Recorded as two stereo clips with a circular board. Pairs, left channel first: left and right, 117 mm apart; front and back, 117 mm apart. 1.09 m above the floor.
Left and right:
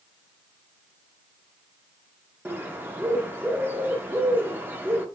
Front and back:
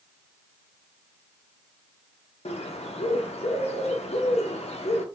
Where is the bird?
20° right, 0.5 m.